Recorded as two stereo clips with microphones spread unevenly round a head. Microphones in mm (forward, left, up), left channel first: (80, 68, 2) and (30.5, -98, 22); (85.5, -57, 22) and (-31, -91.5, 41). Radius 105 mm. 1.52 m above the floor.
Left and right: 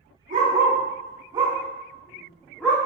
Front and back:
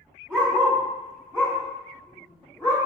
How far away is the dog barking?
About 1.5 m.